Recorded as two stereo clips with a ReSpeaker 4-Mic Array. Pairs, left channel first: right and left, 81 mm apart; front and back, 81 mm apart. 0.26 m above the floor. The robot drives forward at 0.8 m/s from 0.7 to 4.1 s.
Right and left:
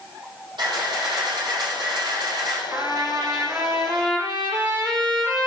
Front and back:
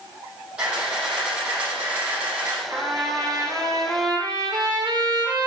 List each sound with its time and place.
0.6 s a camera shutter: 105° left, 8 m; by 2.6 s 115° left, 8.5 m
2.7 s a trumpet: 135° left, 4.5 m; by 5.5 s 145° left, 5.5 m